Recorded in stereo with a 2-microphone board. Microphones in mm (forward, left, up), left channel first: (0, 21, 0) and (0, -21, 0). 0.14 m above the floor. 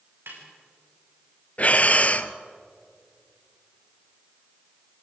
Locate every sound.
0.3 s a snare drum: 70° right (ahead or behind), 7.5 m
1.6 s breathing: 40° left (ahead or behind), 0.8 m